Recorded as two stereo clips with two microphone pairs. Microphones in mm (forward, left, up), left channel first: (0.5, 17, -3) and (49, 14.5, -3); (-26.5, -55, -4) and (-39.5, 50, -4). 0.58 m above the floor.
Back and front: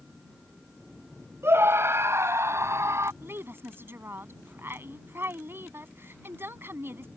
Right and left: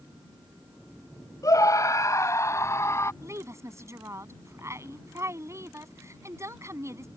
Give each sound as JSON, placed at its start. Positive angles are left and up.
{"t": 1.4, "sound": "a scream", "azimuth_deg": -30}
{"t": 3.2, "sound": "a woman speaking", "azimuth_deg": 35}